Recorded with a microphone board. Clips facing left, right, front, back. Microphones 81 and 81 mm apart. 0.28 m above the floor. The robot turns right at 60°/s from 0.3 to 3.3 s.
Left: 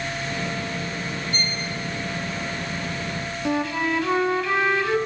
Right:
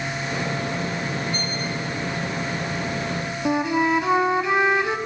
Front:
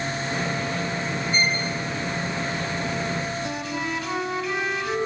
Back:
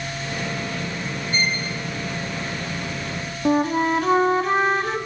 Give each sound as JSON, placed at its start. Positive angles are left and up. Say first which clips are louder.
{"t": 1.3, "sound": "a violin", "louder": "right 1 dB, back 1 dB", "azimuth_deg": 80, "distance_m": 3.5}
{"t": 3.5, "sound": "a flute", "louder": "right 3 dB, back 10 dB", "azimuth_deg": -155, "distance_m": 1.3}